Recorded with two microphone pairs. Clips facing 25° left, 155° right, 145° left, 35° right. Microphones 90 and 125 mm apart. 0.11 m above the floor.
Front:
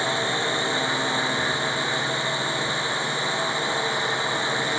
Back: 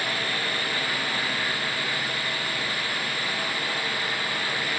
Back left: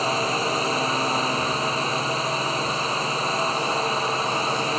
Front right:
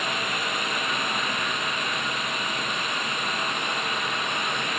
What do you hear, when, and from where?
0.0 s a drone: 90° left